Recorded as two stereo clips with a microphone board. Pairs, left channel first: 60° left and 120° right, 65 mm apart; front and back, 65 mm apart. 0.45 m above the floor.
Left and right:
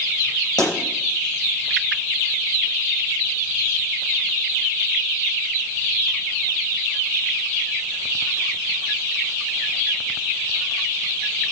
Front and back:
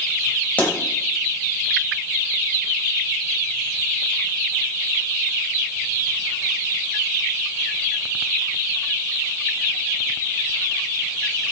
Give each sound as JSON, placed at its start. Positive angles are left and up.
{"t": 0.6, "sound": "a pop", "azimuth_deg": 65, "distance_m": 5.5}